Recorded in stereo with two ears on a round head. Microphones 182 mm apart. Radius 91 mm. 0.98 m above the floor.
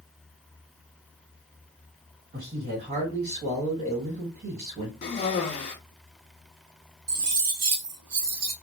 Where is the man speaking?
40° right (ahead or behind), 1.5 m.